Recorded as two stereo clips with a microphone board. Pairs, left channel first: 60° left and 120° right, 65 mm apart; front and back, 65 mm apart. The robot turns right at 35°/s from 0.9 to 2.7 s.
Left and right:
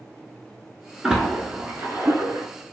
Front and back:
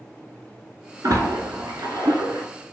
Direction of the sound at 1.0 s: 160° left.